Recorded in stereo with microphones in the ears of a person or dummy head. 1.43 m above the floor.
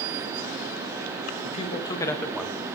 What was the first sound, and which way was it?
A man speaking, 40° left (ahead or behind).